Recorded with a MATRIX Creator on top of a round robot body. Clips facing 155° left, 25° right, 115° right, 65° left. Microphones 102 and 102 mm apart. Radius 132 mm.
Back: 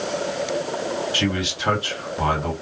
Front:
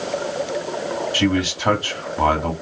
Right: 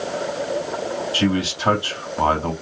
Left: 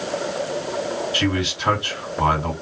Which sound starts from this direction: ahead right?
A man speaking, at 1.1 s.